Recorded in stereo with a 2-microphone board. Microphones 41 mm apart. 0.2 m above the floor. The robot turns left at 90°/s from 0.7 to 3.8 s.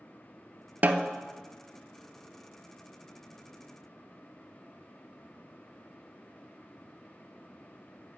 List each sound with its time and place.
0.8 s a snare drum: 50° right (ahead or behind), 0.5 m; by 1.1 s 25° right (ahead or behind), 0.5 m